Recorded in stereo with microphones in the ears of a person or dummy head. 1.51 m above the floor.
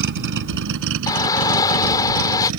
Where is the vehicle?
60° right (ahead or behind); by 2.6 s 85° right.